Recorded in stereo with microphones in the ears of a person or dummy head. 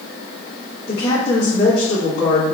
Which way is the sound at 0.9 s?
30° left (ahead or behind).